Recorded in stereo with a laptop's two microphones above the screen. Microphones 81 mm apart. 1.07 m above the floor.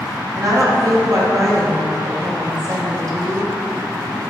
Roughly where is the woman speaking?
Right.